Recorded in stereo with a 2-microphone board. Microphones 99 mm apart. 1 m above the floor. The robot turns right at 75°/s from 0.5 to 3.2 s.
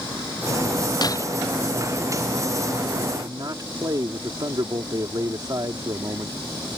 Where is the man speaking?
45° right (ahead or behind).